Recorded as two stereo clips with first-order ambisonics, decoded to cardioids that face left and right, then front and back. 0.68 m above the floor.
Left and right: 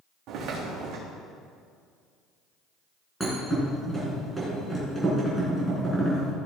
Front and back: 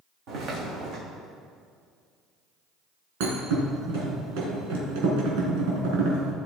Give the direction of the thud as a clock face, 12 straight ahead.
6 o'clock.